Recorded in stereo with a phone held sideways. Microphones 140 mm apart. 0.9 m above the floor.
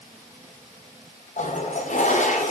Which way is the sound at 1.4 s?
60° left (ahead or behind).